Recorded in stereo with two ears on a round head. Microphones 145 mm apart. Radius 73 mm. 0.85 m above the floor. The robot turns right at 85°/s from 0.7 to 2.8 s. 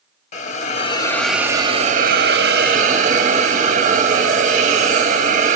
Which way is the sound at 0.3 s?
130° left.